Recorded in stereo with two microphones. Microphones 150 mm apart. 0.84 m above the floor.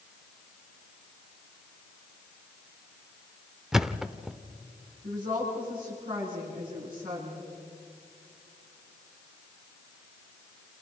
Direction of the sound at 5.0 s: 70° right (ahead or behind).